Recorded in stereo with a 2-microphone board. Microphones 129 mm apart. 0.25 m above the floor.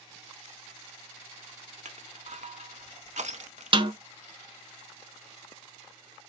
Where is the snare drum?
40° right (ahead or behind), 0.6 m.